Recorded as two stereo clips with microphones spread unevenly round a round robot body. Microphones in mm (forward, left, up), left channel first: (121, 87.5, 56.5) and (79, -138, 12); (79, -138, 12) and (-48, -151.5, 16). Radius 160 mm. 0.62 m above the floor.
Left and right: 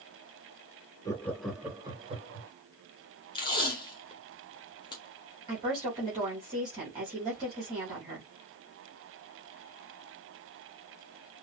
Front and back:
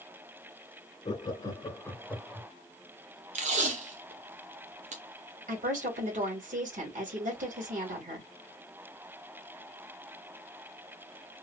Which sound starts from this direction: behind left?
Tape being pulled, at 3.4 s.